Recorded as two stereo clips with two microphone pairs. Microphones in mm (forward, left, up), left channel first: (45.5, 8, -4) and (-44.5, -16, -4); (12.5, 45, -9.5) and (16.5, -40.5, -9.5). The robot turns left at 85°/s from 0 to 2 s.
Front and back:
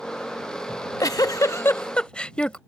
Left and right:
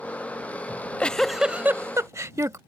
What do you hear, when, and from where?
0.7 s a giggle: 55° left; by 2.6 s 60° right